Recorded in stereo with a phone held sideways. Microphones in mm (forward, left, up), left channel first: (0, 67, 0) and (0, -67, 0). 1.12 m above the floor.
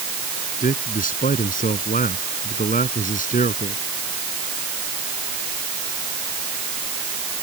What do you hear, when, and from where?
0.6 s a man speaking: 85° left; by 3.8 s 80° left